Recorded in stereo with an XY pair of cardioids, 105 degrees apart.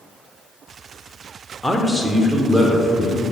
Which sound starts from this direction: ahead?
A man speaking, at 1.6 s.